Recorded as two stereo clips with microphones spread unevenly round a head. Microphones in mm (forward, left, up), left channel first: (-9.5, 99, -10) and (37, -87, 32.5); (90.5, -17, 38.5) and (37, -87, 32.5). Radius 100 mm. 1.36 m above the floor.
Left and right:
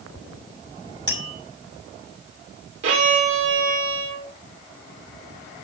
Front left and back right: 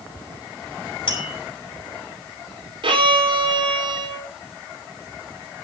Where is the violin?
105° right, 4 m.